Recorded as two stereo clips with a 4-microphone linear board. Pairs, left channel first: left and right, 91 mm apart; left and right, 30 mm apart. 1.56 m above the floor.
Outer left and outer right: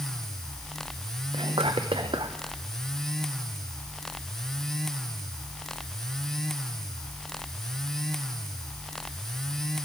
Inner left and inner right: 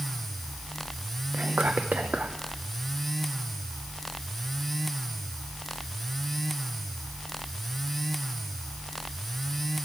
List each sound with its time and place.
1.3 s whispering: 70° right (ahead or behind), 0.6 m